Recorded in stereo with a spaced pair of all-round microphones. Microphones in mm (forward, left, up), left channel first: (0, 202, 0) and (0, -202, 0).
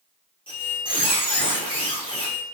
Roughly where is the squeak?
Centre.